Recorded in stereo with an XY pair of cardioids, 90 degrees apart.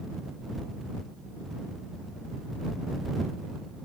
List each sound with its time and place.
Only background noise.